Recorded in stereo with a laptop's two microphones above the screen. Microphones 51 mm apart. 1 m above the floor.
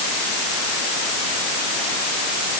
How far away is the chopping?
I don't hear chopping.